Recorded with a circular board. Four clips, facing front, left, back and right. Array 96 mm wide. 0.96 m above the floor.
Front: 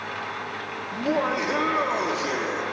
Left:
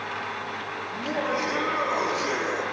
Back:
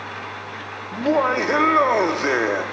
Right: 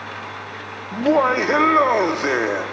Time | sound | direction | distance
0.9 | laughter | 110° right | 1.7 m